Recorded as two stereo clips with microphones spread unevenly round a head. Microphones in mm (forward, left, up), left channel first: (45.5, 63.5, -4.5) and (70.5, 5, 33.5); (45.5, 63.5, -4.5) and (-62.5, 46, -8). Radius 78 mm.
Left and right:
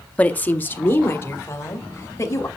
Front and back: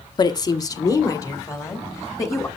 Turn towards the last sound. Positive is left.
turn(degrees=70)